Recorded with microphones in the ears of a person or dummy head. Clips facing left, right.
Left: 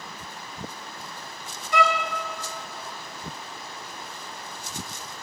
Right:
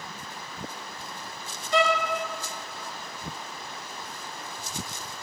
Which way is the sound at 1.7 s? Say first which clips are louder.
Even; 15° right (ahead or behind).